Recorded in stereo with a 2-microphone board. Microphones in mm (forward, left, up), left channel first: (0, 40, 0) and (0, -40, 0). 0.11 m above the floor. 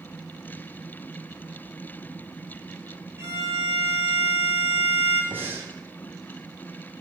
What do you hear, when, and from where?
3.2 s a violin: 35° right (ahead or behind), 2.5 m
5.3 s breathing: 25° right (ahead or behind), 1.3 m